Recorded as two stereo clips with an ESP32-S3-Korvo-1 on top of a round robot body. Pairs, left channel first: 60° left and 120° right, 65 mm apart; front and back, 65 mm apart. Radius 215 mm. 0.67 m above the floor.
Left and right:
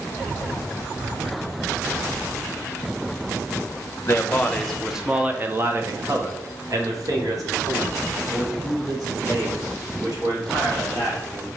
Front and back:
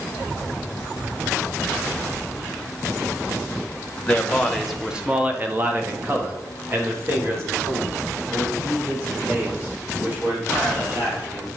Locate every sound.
4.1 s a man speaking: 65° left, 1.2 m; by 11.5 s 130° right, 5.5 m